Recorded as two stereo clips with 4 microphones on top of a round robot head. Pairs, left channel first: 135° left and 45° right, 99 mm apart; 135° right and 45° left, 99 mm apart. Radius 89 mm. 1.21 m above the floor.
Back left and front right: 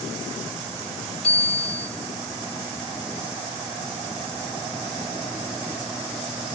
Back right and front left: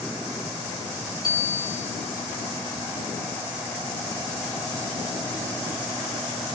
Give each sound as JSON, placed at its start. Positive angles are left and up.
{"t": 1.2, "sound": "a bicycle bell", "azimuth_deg": 170, "distance_m": 5.5}